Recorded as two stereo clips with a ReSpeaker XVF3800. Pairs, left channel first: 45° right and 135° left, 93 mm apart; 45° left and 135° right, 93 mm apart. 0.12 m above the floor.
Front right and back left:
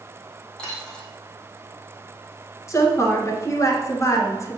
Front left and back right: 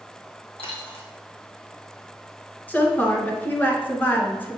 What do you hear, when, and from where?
0.6 s a dropped coin: 35° left, 3 m
2.7 s a woman speaking: 15° right, 1.7 m